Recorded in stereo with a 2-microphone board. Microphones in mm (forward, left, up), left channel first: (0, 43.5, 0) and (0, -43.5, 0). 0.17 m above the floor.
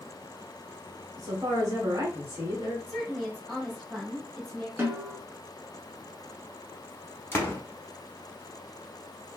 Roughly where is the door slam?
Left.